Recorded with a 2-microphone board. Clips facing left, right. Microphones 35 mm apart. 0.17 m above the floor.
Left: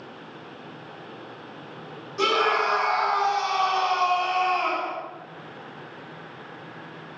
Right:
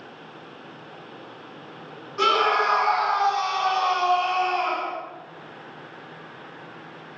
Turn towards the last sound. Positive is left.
turn(degrees=-15)  # may be behind; listen again after turning